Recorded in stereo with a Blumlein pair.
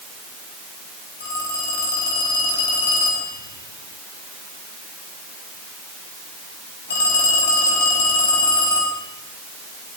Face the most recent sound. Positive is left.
turn(degrees=60)